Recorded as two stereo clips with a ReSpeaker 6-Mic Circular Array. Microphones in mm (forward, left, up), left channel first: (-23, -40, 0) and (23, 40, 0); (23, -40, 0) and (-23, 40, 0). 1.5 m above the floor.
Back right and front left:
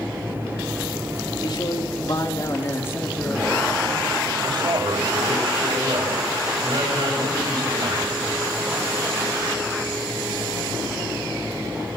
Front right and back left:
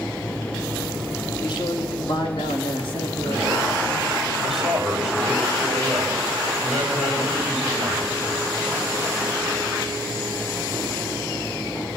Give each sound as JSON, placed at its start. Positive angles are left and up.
{"t": 1.4, "sound": "a man speaking", "azimuth_deg": -90, "distance_m": 3.5}
{"t": 4.4, "sound": "a man speaking", "azimuth_deg": 35, "distance_m": 6.0}